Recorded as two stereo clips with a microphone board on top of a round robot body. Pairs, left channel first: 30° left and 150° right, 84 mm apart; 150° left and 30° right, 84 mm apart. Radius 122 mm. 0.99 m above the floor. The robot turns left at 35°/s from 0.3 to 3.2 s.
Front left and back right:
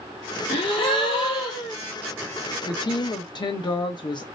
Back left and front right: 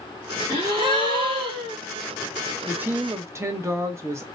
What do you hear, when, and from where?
0.5 s a gasp: 15° left, 1.0 m; by 1.8 s 30° right, 1.0 m
2.6 s a woman speaking: 40° left, 1.0 m; by 4.2 s 20° left, 1.0 m